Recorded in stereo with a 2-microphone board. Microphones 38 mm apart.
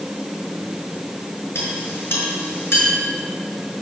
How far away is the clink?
About 6 m.